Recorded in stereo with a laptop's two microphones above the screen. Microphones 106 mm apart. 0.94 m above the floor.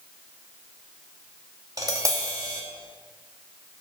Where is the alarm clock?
No alarm clock in this recording.